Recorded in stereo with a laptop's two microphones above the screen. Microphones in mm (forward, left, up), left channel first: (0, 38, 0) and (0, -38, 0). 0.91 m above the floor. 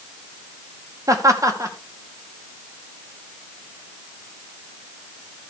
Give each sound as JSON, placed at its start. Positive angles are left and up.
{"t": 1.1, "sound": "laughter", "side_deg": -45, "distance_m": 2.0}